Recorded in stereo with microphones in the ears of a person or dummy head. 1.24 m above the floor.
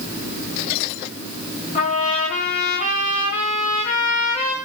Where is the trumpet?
45° left (ahead or behind), 2 m.